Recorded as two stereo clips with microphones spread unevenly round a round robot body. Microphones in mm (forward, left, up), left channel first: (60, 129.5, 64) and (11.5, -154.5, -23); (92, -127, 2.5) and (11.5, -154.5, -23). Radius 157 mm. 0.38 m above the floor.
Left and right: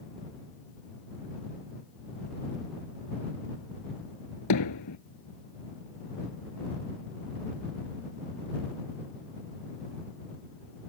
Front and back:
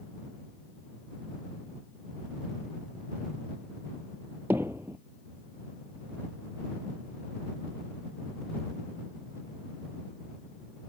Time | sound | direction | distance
4.5 | hammering | 115° left | ?